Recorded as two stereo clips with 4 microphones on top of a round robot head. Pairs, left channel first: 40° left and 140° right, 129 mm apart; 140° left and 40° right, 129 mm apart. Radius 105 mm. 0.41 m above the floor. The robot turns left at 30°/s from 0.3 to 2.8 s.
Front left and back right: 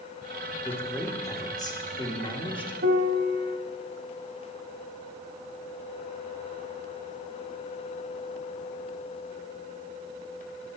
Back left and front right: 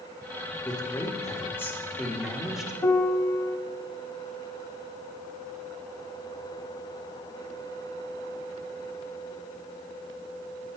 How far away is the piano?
About 0.6 m.